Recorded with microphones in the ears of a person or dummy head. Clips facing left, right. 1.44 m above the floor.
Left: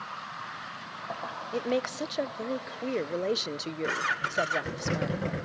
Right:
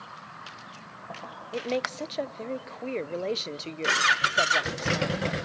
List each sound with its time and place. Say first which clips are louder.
1.5 s a woman speaking: left 1 dB; 10° left (ahead or behind), 0.7 m